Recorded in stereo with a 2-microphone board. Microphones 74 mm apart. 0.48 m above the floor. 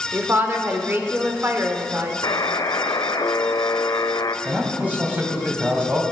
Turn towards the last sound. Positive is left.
turn(degrees=-25)  # may be behind; listen again after turning